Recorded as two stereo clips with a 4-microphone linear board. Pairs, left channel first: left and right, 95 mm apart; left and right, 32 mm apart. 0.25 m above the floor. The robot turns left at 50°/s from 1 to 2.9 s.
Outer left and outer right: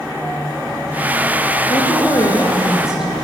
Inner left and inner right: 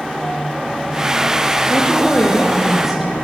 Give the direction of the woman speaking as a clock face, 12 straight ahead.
10 o'clock.